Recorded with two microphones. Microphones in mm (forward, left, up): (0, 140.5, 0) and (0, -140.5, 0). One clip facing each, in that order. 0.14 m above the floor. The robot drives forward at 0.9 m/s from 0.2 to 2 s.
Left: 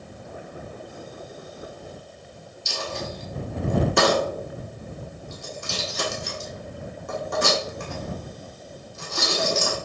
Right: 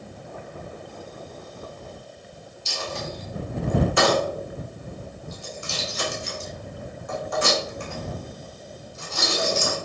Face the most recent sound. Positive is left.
turn(degrees=50)  # may be behind; listen again after turning